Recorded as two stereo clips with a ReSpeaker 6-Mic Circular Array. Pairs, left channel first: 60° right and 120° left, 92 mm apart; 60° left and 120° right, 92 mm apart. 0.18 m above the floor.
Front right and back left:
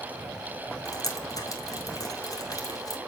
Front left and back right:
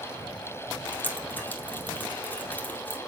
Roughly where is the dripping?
Ahead.